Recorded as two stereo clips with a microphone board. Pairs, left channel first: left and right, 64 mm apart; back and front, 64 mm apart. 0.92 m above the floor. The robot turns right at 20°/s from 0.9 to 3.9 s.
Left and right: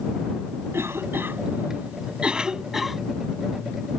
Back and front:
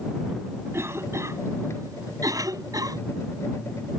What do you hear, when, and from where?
0.7 s a cough: 45° right; by 3.0 s straight ahead